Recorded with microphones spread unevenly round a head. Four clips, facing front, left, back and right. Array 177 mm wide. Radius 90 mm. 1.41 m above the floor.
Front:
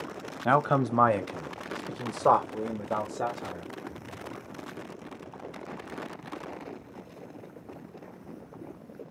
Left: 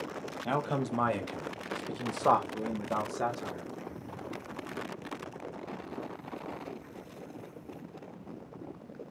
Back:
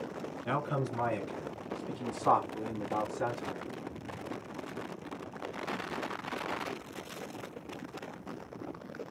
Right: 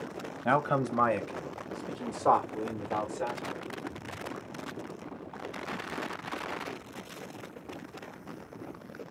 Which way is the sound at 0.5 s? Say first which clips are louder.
Right 5 dB, front 10 dB; 20° right.